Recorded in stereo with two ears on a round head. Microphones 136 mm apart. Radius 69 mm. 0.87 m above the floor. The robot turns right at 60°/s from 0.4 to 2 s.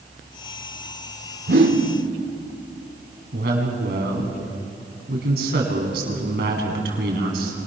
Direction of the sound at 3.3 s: 70° right (ahead or behind).